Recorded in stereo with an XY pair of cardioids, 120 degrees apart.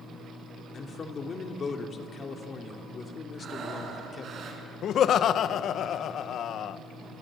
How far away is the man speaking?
About 2.5 m.